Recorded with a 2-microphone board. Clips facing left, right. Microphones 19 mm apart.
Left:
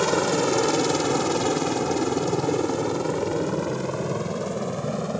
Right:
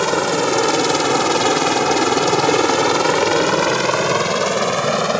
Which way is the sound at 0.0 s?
20° right (ahead or behind).